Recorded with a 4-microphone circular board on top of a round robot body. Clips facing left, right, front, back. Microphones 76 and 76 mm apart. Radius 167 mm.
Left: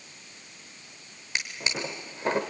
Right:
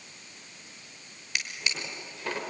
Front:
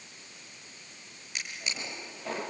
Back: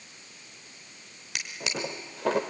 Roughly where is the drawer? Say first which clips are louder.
Left 3 dB, back 5 dB; behind left.